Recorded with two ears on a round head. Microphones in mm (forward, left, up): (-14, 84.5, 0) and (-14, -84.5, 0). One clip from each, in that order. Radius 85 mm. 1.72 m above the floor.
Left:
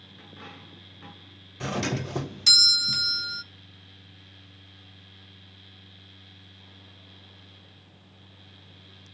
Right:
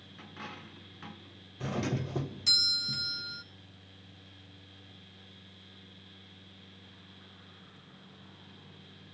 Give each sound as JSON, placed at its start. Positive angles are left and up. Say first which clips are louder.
{"t": 0.2, "sound": "a dropped coin", "louder": "right 1 dB", "side_deg": -15, "distance_m": 9.0}
{"t": 1.6, "sound": "a doorbell", "louder": "left 6 dB", "side_deg": 45, "distance_m": 0.5}